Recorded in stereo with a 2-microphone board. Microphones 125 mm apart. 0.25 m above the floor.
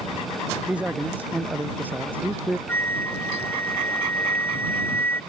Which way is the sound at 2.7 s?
15° left (ahead or behind).